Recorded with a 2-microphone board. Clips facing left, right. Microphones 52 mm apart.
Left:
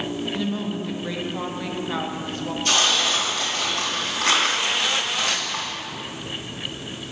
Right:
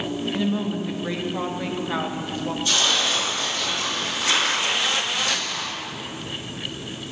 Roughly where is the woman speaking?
Centre.